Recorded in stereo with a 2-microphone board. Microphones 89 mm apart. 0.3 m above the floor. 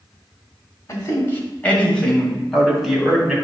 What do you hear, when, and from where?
0.9 s a man speaking: 35° left (ahead or behind), 1.7 m; by 3.4 s 5° right (ahead or behind), 2.5 m